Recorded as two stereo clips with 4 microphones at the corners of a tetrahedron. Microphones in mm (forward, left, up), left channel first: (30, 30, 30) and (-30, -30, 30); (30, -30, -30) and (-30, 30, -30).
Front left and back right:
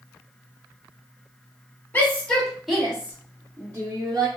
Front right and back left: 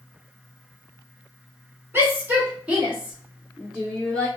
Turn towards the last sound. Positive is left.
turn(degrees=-125)